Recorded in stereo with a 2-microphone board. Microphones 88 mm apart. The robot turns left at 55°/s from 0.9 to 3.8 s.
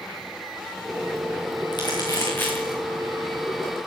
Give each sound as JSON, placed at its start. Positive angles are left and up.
{"t": 1.7, "sound": "crumpling", "side_deg": 60, "distance_m": 5.0}